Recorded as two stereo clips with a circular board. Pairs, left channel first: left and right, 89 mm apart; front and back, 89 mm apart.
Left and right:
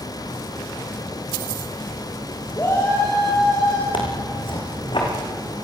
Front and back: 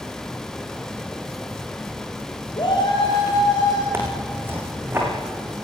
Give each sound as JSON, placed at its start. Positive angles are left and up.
{"t": 2.6, "sound": "a shout", "azimuth_deg": 30, "distance_m": 5.0}
{"t": 3.9, "sound": "tearing paper", "azimuth_deg": 115, "distance_m": 6.0}